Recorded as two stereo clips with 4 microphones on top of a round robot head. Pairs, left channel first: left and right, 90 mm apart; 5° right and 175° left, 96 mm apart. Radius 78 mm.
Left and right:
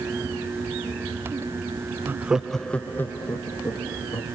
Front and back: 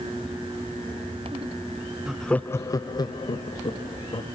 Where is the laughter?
110° right, 0.5 m; by 4.2 s 30° left, 1.7 m.